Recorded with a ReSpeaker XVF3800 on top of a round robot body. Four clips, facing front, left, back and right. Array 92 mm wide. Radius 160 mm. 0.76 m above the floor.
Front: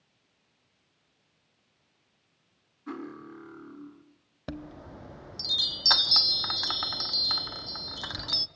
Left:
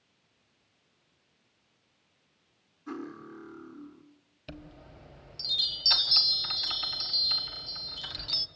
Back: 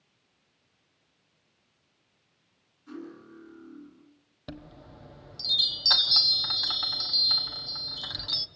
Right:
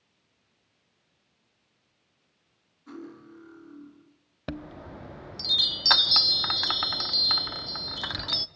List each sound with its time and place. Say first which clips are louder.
2.9 s cutlery clinking: left 3 dB, front 3 dB; 25° left, 4.5 m
4.5 s a chime: right 9 dB, front 4 dB; 75° right, 1.2 m